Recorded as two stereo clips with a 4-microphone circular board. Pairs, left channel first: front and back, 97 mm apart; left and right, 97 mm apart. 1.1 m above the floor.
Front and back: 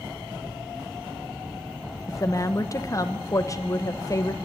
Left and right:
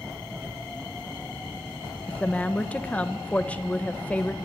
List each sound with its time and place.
2.1 s a woman speaking: 25° left, 0.8 m